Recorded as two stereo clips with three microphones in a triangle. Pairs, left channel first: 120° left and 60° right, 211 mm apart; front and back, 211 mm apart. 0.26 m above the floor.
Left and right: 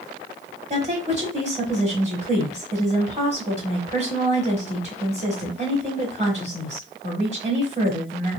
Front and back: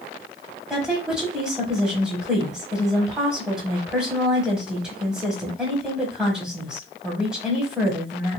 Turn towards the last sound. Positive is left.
turn(degrees=-95)